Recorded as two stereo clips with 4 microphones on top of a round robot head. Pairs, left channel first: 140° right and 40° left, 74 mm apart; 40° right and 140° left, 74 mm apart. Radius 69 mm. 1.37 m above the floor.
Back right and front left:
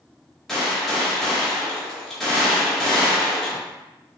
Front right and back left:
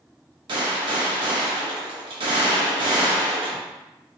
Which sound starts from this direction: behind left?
A gunshot, at 0.5 s.